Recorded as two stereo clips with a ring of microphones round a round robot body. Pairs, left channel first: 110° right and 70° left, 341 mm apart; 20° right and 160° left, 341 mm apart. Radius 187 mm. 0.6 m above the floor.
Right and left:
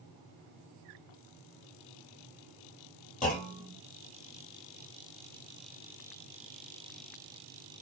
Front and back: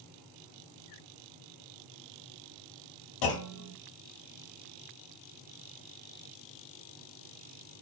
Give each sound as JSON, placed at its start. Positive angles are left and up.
{"t": 3.2, "sound": "a clunk", "azimuth_deg": -45, "distance_m": 0.9}